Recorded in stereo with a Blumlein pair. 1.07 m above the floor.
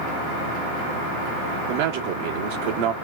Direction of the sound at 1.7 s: 50° right.